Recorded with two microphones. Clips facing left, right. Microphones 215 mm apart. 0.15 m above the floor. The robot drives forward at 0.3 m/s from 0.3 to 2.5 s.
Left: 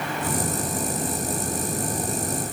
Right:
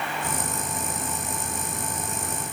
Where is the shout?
I don't hear a shout.